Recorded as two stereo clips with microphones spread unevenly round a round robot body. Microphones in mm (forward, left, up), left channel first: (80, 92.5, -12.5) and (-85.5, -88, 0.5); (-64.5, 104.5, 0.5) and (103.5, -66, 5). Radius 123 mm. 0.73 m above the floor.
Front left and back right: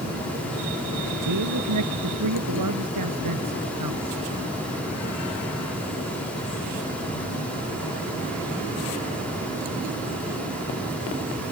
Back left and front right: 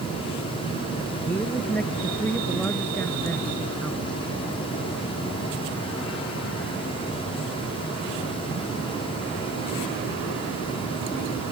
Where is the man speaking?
140° right.